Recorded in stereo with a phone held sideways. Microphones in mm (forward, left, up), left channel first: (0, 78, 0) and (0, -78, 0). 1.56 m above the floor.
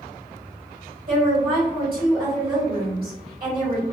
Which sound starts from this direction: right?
A woman speaking, at 1.1 s.